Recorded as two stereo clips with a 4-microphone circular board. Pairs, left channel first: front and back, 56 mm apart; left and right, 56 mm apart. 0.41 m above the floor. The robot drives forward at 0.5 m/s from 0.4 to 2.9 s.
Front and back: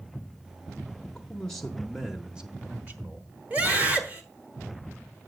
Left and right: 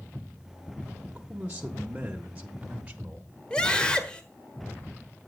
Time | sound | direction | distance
1.0 | a man speaking | 45° right | 0.9 m
3.5 | a scream | 145° left | 1.1 m